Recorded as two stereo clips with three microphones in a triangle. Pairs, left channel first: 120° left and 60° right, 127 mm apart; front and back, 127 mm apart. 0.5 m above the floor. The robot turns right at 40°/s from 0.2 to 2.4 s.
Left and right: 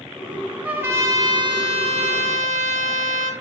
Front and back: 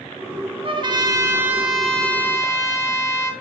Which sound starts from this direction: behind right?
A trumpet, at 0.6 s.